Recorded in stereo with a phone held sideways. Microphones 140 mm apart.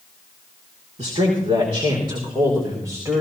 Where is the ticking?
I don't hear ticking.